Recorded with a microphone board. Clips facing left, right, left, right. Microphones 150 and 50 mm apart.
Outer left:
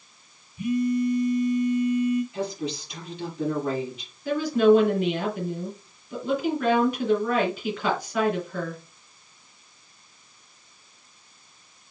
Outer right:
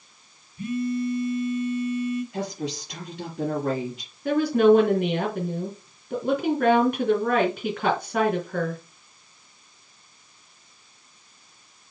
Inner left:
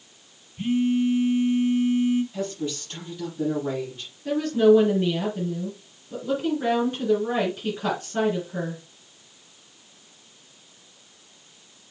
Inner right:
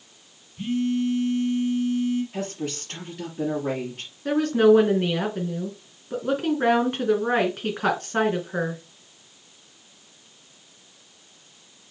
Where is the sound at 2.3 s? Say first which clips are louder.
Even, inner left 1 dB; 70° right (ahead or behind), 5 m.